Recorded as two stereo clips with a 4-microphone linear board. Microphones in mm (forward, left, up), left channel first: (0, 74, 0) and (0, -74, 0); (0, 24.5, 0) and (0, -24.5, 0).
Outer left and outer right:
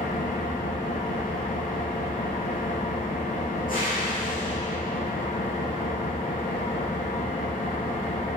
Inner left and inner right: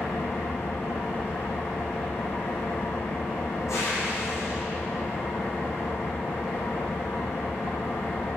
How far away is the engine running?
About 3 m.